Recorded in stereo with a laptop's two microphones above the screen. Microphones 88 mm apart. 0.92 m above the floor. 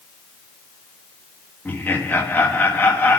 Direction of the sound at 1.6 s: 25° left (ahead or behind).